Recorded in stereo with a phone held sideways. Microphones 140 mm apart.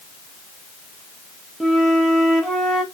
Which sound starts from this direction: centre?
A flute, at 1.6 s.